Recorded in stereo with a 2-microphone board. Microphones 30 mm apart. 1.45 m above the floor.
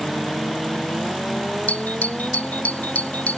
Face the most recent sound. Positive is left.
turn(degrees=55)  # may be behind; listen again after turning